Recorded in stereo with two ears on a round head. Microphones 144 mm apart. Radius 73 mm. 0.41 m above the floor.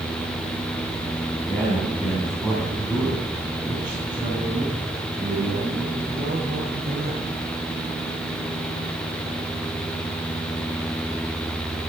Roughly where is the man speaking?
Centre.